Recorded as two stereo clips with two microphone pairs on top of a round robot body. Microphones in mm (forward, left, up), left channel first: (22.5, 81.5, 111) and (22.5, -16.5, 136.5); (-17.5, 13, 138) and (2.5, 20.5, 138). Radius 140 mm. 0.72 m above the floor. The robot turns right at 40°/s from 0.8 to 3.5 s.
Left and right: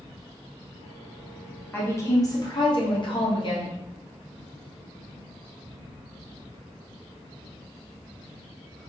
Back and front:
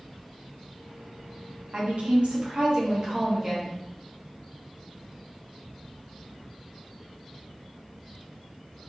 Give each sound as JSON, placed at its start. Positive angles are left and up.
{"t": 1.7, "sound": "a woman speaking", "azimuth_deg": 25, "distance_m": 1.4}